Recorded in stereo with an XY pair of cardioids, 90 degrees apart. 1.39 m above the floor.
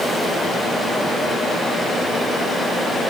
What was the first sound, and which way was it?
Only background noise.